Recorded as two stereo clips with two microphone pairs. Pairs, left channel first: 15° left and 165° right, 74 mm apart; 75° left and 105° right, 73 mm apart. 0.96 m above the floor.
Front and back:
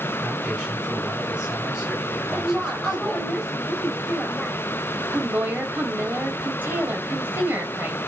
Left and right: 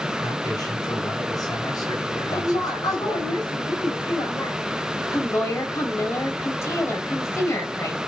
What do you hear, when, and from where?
0.2 s a man speaking: 115° left, 7.5 m; by 3.3 s 110° left, 4.5 m
2.3 s a woman speaking: 95° left, 4 m
5.1 s a woman speaking: 130° left, 4 m